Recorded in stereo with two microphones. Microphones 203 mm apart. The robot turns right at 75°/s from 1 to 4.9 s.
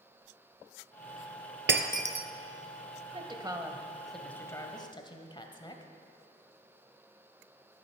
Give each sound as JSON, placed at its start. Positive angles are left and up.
{"t": 1.7, "sound": "breaking glass", "side_deg": -65, "distance_m": 0.8}
{"t": 3.1, "sound": "a woman speaking", "side_deg": -25, "distance_m": 1.2}